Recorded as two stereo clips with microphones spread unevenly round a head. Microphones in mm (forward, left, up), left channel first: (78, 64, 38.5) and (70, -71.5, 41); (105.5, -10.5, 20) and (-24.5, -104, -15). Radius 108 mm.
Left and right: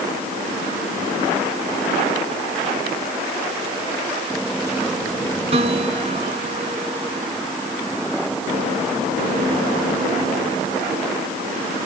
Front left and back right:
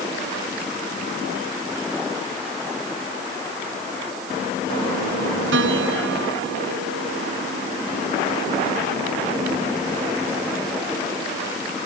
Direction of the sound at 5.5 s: 155° right.